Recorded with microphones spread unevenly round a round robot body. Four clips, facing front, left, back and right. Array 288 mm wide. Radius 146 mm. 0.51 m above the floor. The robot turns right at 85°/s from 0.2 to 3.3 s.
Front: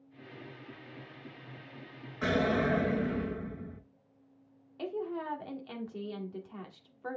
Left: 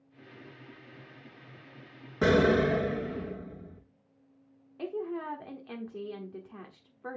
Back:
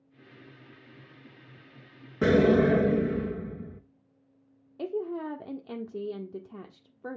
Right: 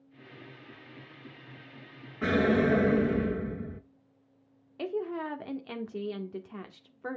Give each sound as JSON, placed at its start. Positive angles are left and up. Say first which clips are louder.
{"t": 2.2, "sound": "an explosion", "louder": "left 2 dB, back 8 dB", "azimuth_deg": 145, "distance_m": 0.6}
{"t": 4.8, "sound": "a woman speaking", "louder": "right 2 dB, back 4 dB", "azimuth_deg": -155, "distance_m": 1.1}